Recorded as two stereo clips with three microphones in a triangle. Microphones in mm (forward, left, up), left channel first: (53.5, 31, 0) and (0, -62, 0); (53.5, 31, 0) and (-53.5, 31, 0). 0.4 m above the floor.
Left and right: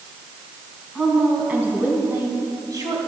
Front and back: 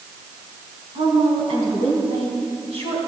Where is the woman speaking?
155° left, 3.5 m; by 3.0 s 170° right, 3 m.